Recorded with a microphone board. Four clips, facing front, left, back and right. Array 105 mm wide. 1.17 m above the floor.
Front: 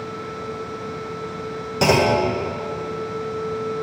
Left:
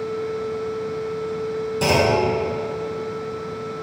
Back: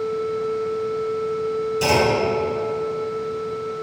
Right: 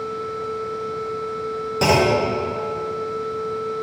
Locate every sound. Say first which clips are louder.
1.8 s a clunk: right 1 dB, front 3 dB; 25° right, 1.2 m